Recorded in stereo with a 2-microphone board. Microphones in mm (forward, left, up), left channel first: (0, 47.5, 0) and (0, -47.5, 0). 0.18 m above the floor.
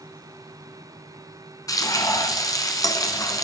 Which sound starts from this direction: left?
Frying, at 1.7 s.